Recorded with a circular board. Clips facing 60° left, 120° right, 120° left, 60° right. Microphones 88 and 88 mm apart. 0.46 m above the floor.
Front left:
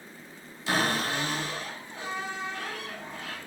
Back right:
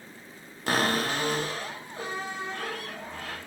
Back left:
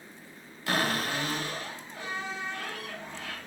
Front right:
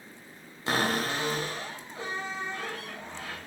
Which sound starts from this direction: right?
A cupboard door, at 0.7 s.